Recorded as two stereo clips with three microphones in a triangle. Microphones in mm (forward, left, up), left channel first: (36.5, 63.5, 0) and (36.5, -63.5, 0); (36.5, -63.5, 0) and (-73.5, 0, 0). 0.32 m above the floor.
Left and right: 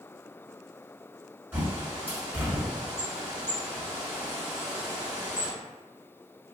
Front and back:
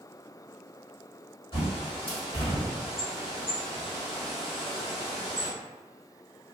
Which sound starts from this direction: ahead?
A bird, at 1.5 s.